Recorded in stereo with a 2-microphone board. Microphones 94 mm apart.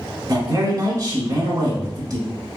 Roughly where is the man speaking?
Right.